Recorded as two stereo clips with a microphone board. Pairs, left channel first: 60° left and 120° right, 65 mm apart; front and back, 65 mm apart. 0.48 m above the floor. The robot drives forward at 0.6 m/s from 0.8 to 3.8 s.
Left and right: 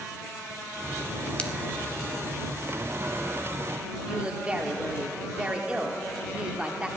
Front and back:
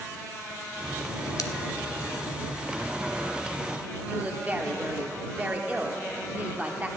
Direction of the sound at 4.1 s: 160° right.